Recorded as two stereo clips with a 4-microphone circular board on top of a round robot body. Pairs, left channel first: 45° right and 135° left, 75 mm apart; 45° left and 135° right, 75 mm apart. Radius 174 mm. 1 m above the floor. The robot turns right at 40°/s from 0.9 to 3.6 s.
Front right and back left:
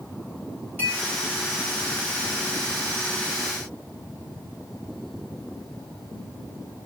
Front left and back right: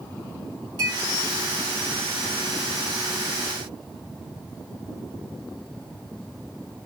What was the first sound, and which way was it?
A clink, 110° right.